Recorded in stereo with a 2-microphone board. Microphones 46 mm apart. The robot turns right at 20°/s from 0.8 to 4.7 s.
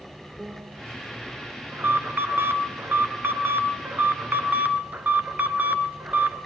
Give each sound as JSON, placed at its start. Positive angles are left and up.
{"t": 0.4, "sound": "a piano", "side_deg": -25, "distance_m": 5.5}
{"t": 1.7, "sound": "an alarm", "azimuth_deg": -115, "distance_m": 2.5}